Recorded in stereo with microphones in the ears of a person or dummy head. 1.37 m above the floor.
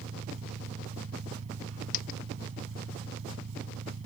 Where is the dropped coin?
50° left (ahead or behind).